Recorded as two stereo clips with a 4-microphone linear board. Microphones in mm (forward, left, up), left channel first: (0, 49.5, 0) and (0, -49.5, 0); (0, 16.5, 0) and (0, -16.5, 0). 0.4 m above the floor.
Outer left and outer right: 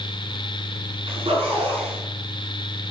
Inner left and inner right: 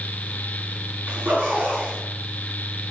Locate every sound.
1.1 s a zipper: 70° right (ahead or behind), 5 m